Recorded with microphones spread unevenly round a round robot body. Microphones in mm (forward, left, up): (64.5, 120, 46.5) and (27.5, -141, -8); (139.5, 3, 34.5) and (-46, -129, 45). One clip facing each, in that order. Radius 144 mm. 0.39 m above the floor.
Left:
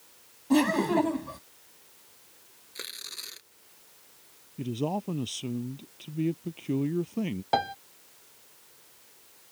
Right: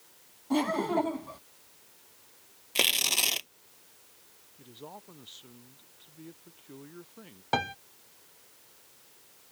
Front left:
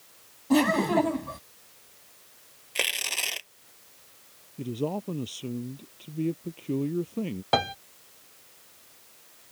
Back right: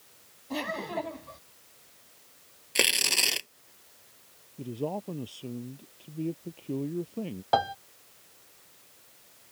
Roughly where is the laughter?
Ahead.